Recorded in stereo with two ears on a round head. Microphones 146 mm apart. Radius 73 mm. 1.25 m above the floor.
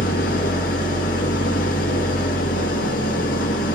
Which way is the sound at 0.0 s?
60° left (ahead or behind).